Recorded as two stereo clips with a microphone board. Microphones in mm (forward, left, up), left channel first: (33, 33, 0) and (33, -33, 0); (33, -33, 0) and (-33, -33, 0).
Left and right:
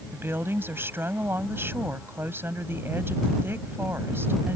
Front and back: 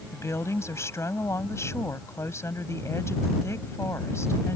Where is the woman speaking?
40° right.